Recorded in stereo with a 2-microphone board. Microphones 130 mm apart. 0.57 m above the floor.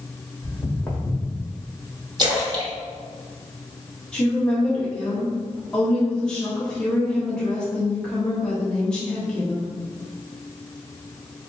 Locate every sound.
0.4 s footsteps: 15° left (ahead or behind), 1.6 m; by 1.4 s 5° right (ahead or behind), 1.8 m
2.2 s a splash: 35° right (ahead or behind), 1.3 m
4.1 s a woman speaking: 5° left (ahead or behind), 1.1 m